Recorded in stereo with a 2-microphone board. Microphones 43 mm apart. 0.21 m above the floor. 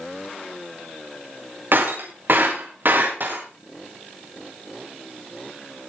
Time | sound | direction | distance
1.7 | breaking glass | 55° right (ahead or behind) | 5.5 m